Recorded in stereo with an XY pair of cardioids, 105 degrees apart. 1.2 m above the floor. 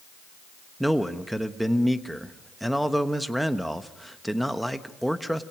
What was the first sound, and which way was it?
A man speaking, 5° right.